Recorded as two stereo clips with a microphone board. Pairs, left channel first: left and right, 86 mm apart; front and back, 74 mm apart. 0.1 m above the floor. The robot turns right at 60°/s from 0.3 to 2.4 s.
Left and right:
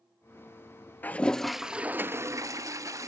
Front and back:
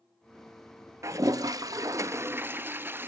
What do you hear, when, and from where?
1.0 s a toilet flushing: 150° left, 0.6 m; by 3.1 s 125° right, 0.6 m